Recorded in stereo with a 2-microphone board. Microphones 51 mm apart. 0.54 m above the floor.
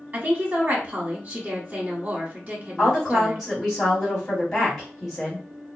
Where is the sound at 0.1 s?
35° right (ahead or behind), 1.3 m.